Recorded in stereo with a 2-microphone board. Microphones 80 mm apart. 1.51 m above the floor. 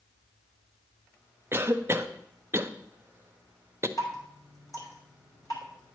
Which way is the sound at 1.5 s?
30° right (ahead or behind).